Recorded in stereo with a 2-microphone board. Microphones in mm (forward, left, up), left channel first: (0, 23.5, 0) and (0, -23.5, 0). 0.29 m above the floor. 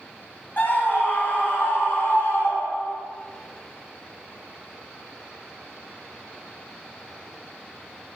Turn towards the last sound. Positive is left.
turn(degrees=65)  # may be behind; listen again after turning